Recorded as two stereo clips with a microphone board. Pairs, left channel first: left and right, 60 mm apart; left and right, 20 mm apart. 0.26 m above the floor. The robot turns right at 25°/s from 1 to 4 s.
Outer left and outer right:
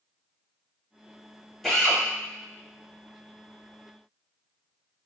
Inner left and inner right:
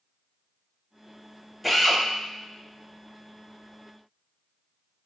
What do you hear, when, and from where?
1.6 s a drill: 5° left (ahead or behind), 1.0 m; by 2.0 s 10° left (ahead or behind), 1.0 m